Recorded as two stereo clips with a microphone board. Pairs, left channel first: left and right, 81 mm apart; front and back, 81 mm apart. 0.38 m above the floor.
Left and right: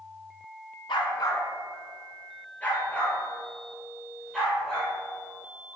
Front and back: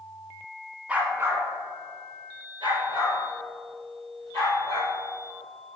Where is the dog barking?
105° left, 0.9 m; by 4.9 s 175° left, 4 m.